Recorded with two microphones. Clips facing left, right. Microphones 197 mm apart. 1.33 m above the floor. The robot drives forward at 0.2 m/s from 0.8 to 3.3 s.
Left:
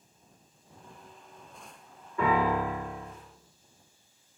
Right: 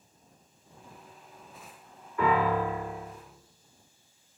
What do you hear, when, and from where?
2.2 s a piano: 25° left (ahead or behind), 1.3 m; by 3.1 s 20° left (ahead or behind), 1.5 m